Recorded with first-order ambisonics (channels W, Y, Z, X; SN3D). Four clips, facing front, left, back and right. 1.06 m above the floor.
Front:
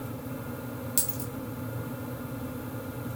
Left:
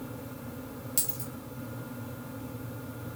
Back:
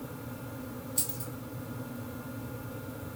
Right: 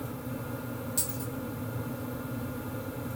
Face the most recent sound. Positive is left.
turn(degrees=20)